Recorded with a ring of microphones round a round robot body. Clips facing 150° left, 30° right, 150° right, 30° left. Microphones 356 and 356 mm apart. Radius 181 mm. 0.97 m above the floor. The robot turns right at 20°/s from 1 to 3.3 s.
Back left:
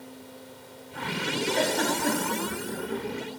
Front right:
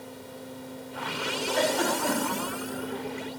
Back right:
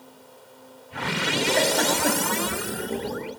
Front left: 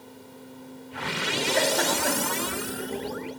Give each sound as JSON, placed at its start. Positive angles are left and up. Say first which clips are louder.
{"t": 1.5, "sound": "a giggle", "louder": "front right 3 dB, even", "azimuth_deg": -155, "distance_m": 2.0}